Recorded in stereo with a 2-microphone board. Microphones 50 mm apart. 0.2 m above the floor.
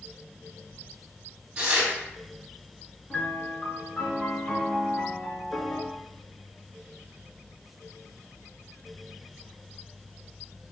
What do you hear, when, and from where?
1.6 s tearing paper: 15° right (ahead or behind), 1.5 m
3.1 s a piano: 20° left (ahead or behind), 0.7 m